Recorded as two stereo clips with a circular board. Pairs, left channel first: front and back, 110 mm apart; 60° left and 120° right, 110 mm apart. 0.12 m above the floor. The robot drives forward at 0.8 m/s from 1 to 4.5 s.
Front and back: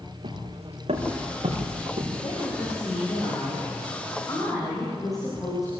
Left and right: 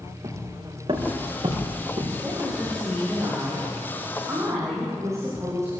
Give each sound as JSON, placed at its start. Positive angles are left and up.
{"t": 0.2, "sound": "footsteps", "azimuth_deg": -160, "distance_m": 5.0}
{"t": 2.1, "sound": "a woman speaking", "azimuth_deg": -45, "distance_m": 8.5}